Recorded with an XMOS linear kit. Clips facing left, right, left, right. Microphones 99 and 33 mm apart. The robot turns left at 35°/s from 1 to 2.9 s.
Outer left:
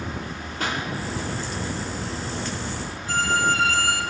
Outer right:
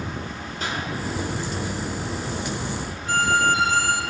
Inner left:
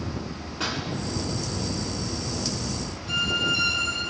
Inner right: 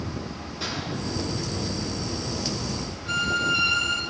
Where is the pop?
70° left (ahead or behind), 3.5 m.